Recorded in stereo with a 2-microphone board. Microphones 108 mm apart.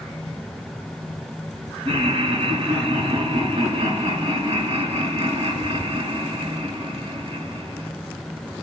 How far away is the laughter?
About 4 m.